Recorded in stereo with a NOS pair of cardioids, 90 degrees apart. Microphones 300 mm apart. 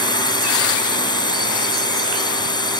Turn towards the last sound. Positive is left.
turn(degrees=15)